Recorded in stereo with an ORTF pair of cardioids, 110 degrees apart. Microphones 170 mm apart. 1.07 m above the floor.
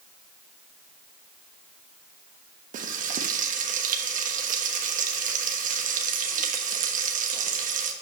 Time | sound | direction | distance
2.7 | frying | 50° right | 1.2 m